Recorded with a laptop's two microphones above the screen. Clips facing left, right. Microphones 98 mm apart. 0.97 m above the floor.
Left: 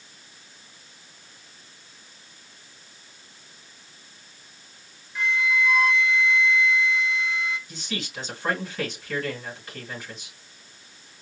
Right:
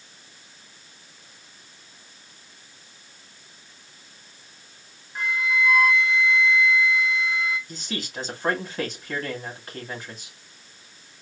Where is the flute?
45° right (ahead or behind), 1.3 m.